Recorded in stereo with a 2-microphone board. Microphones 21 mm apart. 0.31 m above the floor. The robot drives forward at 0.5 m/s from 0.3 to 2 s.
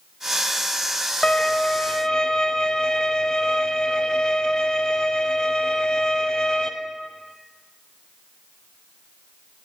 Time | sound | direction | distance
1.2 | a violin | 40° left (ahead or behind) | 0.8 m